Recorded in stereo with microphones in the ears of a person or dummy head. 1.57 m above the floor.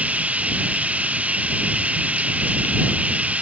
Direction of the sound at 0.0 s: 10° right (ahead or behind).